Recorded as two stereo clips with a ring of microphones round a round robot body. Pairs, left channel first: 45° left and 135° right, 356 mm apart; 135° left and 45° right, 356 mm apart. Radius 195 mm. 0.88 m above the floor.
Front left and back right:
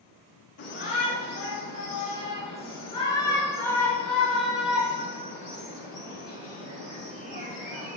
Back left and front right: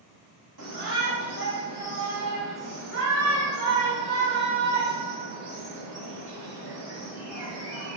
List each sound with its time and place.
0.6 s a shout: 15° right, 4 m; by 8.0 s 70° right, 4 m